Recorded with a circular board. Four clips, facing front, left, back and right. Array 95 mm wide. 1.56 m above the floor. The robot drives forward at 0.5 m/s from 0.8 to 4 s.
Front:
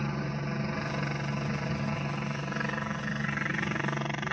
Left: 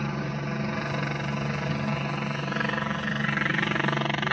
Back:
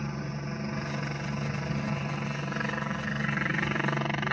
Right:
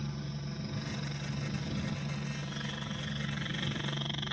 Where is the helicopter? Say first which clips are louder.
Left 10 dB, front 2 dB; 75° left; by 4.3 s 105° left.